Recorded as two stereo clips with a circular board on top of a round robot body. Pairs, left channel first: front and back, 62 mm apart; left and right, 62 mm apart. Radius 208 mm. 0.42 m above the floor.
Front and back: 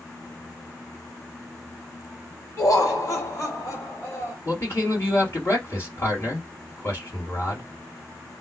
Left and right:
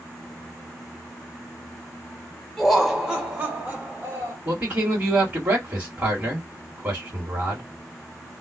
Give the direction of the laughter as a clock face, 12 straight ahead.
12 o'clock.